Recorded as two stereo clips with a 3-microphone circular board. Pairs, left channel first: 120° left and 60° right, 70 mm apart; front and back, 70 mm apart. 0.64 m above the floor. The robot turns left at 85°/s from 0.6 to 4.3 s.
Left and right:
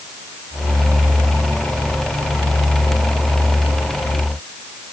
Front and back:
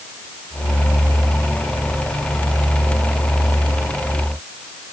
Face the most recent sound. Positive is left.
No sound to turn to.